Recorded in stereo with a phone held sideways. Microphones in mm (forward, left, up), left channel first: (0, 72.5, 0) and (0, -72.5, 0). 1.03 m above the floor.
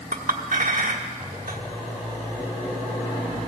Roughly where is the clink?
Right.